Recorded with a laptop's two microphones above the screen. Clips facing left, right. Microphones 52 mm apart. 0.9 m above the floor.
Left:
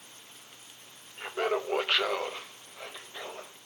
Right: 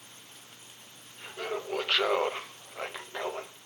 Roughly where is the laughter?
Left.